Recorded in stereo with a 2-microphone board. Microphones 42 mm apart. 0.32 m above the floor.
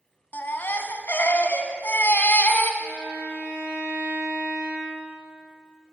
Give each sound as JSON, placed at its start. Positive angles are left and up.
{"t": 0.3, "sound": "a baby crying", "side_deg": 55, "distance_m": 1.1}
{"t": 2.8, "sound": "a violin", "side_deg": 65, "distance_m": 5.5}